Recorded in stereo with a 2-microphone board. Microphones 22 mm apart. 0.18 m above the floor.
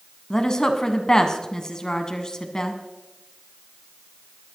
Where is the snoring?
I don't hear snoring.